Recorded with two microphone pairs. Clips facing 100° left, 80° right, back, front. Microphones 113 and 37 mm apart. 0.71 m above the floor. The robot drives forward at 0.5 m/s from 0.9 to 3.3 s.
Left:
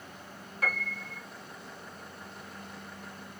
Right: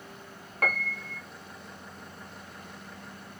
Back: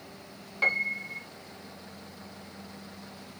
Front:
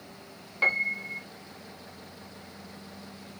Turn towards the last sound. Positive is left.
turn(degrees=-155)